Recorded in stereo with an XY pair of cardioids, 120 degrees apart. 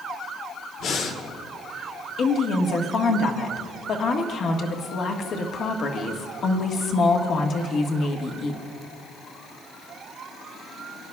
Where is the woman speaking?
50° left, 1.5 m.